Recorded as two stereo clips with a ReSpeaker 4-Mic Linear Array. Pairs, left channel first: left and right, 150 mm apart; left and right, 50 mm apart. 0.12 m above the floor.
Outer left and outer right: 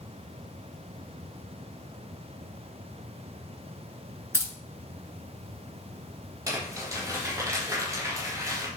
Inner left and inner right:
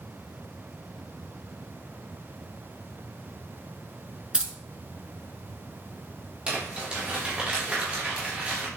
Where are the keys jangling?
20° right (ahead or behind), 1.1 m.